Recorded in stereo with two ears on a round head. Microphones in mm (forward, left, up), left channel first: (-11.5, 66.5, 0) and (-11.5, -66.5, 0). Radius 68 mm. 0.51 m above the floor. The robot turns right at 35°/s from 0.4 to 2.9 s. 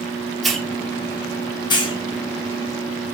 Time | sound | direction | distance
0.4 | a hiss | centre (ahead or behind) | 0.6 m